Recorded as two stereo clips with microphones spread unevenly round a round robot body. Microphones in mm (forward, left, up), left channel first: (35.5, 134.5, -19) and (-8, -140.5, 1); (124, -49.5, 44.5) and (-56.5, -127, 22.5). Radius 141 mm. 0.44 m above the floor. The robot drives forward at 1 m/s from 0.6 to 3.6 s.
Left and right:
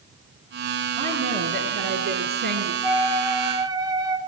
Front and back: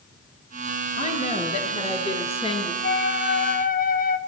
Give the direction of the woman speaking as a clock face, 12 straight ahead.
1 o'clock.